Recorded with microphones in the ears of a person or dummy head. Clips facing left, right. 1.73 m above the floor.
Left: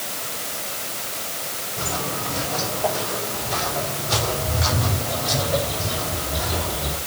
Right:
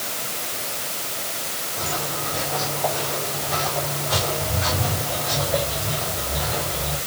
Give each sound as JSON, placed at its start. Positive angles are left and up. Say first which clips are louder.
{"t": 1.8, "sound": "footsteps", "louder": "left 1 dB", "side_deg": 20, "distance_m": 5.0}